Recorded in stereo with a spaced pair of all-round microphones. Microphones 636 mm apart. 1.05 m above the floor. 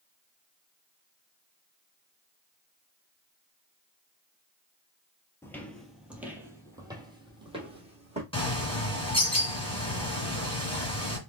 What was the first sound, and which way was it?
Footsteps, 5° left (ahead or behind).